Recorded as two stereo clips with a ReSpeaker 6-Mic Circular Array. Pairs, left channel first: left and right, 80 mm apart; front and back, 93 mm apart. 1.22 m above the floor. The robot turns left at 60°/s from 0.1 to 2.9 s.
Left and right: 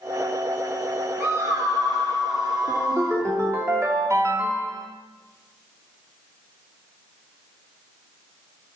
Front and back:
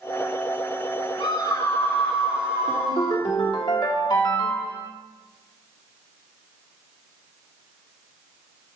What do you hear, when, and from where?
1.2 s a scream: 30° right, 3 m; by 3.2 s 135° right, 3 m
2.7 s a ringtone: 25° right, 2 m; by 4.9 s 40° right, 2 m